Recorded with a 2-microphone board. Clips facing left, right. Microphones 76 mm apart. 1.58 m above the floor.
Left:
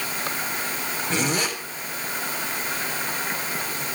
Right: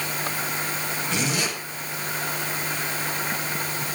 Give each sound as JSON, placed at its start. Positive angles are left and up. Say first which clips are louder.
{"t": 1.1, "sound": "a zipper", "louder": "left 3 dB", "side_deg": 40, "distance_m": 4.0}